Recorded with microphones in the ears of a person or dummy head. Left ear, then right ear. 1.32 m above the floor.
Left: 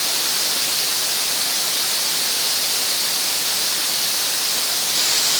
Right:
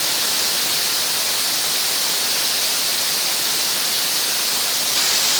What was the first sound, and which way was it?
Only background noise.